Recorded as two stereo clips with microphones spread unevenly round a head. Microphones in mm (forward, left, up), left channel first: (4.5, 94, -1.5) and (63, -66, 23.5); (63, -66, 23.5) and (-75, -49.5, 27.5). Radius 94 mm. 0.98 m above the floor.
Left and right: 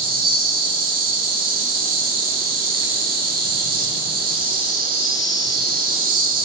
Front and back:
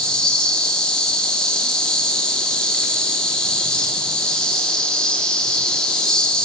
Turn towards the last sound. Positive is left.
turn(degrees=-85)